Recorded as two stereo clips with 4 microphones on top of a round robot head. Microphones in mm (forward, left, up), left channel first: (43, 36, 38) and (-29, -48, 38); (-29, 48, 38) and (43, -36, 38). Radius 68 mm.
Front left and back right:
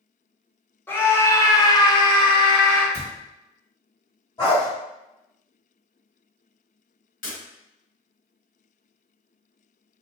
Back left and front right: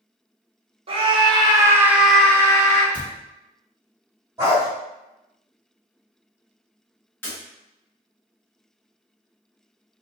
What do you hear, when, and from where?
0.9 s a scream: 20° right, 0.8 m; by 2.8 s 90° left, 0.6 m
2.9 s a cupboard door: 25° left, 1.8 m
4.4 s a dog barking: 10° left, 1.5 m
7.2 s breaking glass: 60° left, 1.3 m